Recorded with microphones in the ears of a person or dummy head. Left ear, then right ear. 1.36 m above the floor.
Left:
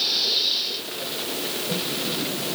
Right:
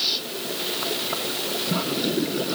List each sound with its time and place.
Only background noise.